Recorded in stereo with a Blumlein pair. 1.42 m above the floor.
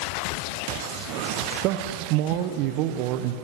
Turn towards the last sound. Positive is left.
turn(degrees=-40)